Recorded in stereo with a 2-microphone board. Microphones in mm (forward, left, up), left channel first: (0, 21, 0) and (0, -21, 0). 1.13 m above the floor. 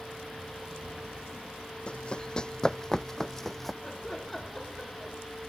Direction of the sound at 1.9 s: 25° left (ahead or behind).